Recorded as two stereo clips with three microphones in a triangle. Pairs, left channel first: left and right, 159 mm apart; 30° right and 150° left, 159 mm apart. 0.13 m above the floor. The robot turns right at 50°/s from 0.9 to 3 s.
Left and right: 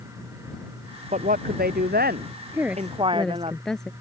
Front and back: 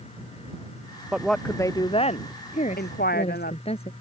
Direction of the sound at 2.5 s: 20° right.